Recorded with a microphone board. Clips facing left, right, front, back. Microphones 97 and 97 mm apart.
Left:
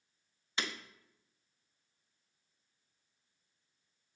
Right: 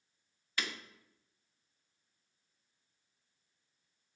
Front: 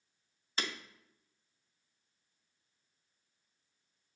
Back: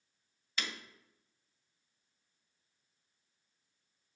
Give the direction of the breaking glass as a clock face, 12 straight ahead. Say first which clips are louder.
Left 1 dB, front 2 dB; 11 o'clock.